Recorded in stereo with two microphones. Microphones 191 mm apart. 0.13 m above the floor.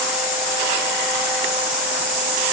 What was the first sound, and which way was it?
Only background noise.